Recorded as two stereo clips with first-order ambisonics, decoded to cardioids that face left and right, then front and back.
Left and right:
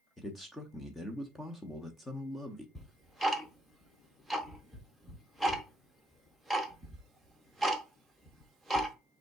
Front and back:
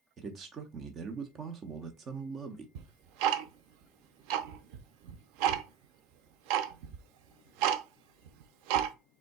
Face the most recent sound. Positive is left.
turn(degrees=180)